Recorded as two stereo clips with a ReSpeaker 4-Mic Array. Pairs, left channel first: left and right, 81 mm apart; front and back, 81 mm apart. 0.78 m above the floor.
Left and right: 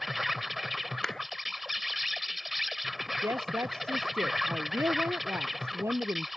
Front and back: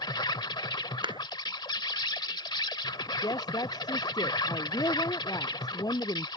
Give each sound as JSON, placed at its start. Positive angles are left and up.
{"t": 0.0, "sound": "an insect", "azimuth_deg": 0}
{"t": 1.0, "sound": "a clap", "azimuth_deg": 170}
{"t": 3.2, "sound": "a woman speaking", "azimuth_deg": -35}